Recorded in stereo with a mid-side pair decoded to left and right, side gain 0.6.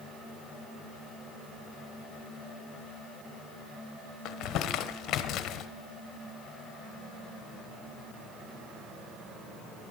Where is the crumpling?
55° left, 0.9 m.